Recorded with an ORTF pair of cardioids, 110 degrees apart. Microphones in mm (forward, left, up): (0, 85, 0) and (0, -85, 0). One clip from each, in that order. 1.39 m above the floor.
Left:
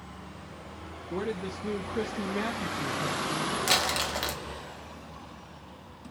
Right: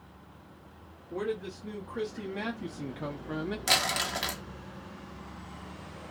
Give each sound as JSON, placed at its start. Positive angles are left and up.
{"t": 1.1, "sound": "a man speaking", "azimuth_deg": 40, "distance_m": 1.4}
{"t": 3.7, "sound": "crumpling", "azimuth_deg": 5, "distance_m": 0.9}